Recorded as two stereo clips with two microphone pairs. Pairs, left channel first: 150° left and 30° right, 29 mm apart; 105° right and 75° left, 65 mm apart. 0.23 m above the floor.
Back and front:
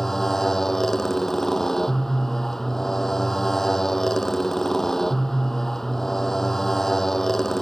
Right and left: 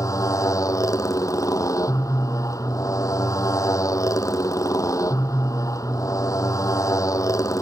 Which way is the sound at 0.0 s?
130° right.